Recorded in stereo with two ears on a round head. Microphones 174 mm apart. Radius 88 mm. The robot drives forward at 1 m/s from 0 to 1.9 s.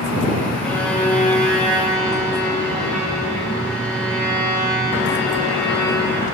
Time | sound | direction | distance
0.6 | a violin | 10° left (ahead or behind) | 4.5 m